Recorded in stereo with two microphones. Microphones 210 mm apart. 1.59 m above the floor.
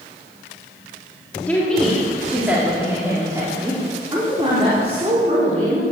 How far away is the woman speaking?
About 3 m.